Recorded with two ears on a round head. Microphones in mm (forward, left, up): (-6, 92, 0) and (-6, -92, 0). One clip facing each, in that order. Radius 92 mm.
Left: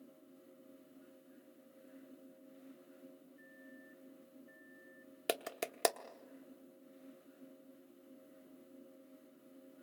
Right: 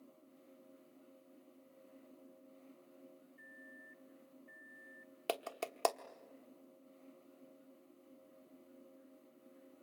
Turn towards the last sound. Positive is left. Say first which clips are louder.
# left 1 dB
turn(degrees=20)  # may be behind; listen again after turning